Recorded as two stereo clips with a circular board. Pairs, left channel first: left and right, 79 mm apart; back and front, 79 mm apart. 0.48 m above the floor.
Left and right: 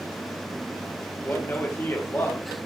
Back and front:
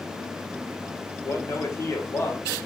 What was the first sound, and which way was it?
A man speaking, 135° left.